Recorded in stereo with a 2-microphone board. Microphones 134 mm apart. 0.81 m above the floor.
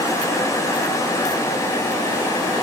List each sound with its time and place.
Only background noise.